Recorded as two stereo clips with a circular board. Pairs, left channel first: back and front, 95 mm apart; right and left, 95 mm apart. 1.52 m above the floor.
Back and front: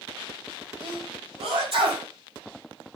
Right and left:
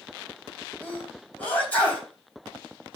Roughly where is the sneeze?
Ahead.